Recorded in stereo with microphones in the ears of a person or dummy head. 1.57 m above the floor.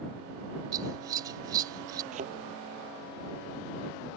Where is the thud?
45° right (ahead or behind).